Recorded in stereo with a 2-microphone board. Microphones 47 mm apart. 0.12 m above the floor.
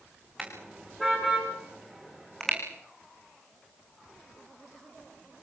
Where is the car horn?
5° right (ahead or behind), 7 m; by 2.6 s 5° left (ahead or behind), 5.5 m.